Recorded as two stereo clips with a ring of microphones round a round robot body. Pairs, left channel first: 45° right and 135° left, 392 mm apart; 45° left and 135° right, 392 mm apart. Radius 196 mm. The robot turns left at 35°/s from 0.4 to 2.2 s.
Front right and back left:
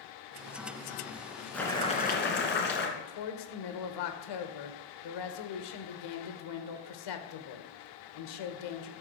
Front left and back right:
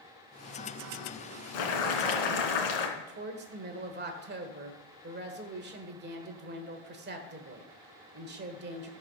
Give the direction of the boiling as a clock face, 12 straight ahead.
11 o'clock.